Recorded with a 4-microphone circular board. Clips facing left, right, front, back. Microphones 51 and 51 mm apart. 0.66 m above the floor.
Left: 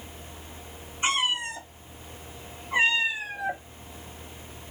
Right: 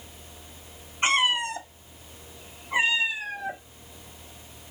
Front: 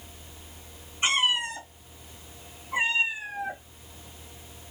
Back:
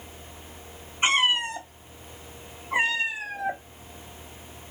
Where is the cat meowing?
120° right, 1.3 m; by 3.6 s 165° left, 1.0 m.